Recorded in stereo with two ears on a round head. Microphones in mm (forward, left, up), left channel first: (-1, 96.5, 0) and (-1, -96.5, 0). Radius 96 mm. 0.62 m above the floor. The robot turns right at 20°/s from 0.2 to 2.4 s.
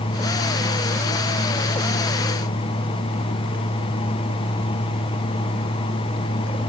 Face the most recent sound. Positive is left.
No sound to turn to.